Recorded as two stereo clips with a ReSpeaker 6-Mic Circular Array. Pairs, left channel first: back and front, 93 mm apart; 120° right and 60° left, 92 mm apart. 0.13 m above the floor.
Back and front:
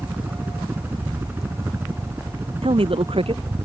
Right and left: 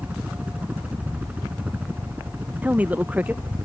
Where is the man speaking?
15° right.